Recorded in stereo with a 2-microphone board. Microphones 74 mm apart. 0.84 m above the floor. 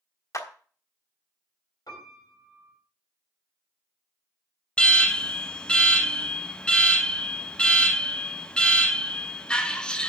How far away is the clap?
About 1.3 m.